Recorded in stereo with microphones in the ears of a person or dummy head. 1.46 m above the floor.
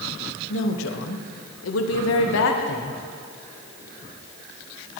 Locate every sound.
0.5 s a woman speaking: 75° left (ahead or behind), 1.5 m; by 3.0 s 55° left (ahead or behind), 1.5 m